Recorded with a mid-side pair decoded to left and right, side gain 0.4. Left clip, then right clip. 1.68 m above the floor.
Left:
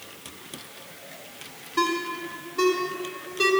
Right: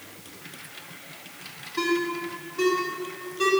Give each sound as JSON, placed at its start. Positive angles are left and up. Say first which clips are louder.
{"t": 1.8, "sound": "a ringtone", "louder": "left 1 dB", "azimuth_deg": 55, "distance_m": 2.0}